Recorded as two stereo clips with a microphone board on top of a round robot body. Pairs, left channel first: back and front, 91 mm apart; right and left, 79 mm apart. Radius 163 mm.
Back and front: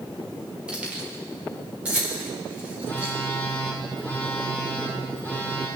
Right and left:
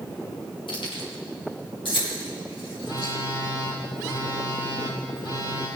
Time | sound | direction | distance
0.7 | keys jangling | 80° right | 1.9 m
2.8 | a phone buzzing | 70° right | 5.5 m